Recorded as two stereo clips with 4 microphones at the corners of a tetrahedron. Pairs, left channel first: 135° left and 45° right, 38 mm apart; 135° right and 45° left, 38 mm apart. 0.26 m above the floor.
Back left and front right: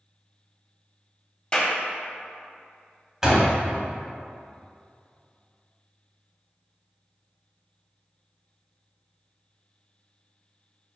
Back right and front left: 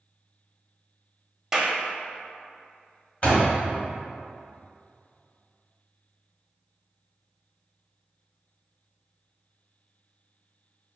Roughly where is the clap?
Behind left.